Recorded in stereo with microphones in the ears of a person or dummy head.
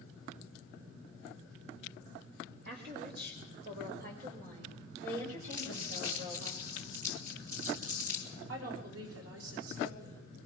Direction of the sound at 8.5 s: 90° right.